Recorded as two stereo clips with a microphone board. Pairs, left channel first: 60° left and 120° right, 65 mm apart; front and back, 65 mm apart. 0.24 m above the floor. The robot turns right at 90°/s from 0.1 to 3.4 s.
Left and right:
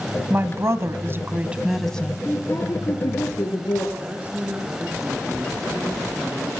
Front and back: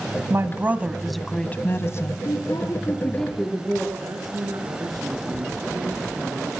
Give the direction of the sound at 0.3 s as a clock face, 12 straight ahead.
5 o'clock.